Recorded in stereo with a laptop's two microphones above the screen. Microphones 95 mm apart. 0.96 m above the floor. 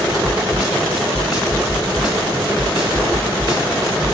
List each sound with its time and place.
0.2 s a snare drum: 40° left (ahead or behind), 2.5 m